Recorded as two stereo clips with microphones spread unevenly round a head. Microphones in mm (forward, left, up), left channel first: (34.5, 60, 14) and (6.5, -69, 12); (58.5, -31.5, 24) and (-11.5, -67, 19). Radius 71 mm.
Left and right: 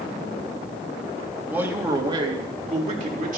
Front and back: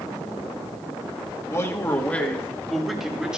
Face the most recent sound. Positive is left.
turn(degrees=-75)